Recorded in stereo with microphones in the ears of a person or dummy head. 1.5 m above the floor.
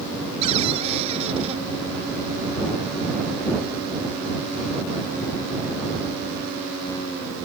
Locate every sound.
0.4 s a cupboard door: 35° right (ahead or behind)